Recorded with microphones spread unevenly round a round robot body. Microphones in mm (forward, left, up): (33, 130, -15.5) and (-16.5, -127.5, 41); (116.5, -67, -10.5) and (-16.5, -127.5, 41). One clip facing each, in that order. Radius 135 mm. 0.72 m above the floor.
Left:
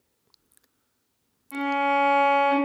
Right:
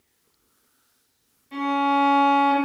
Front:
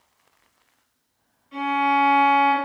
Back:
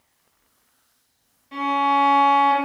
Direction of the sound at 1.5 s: 160° right.